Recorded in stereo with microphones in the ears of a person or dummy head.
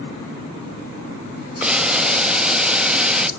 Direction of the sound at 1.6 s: 5° right (ahead or behind).